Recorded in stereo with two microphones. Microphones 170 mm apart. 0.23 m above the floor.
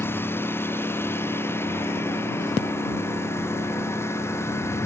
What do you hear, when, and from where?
0.0 s a lawn mower: 15° left (ahead or behind)